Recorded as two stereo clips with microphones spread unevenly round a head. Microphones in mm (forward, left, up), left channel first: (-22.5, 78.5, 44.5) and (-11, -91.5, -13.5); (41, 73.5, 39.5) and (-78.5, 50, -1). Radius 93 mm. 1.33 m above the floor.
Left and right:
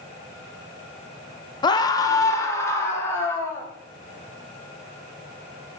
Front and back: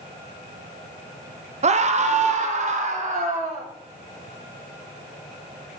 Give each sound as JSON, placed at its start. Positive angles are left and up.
{"t": 1.6, "sound": "a scream", "azimuth_deg": 160, "distance_m": 0.8}